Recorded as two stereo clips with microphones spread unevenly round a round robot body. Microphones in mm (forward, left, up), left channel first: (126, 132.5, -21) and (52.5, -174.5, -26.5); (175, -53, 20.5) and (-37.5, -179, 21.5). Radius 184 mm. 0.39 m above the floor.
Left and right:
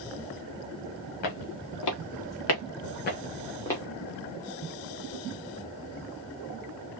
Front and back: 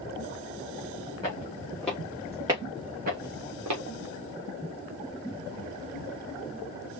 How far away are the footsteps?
About 3 m.